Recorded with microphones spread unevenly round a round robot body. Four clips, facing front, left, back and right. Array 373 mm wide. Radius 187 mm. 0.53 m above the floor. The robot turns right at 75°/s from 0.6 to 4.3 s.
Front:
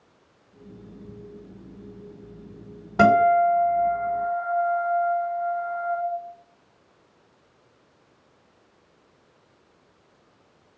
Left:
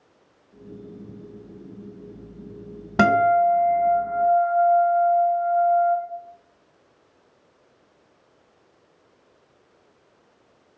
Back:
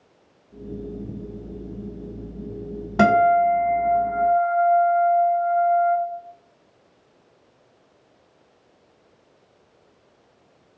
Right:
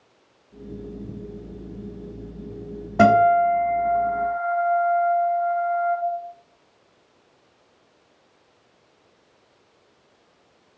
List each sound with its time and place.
3.0 s a guitar: 100° left, 1.8 m; by 6.0 s 165° right, 1.8 m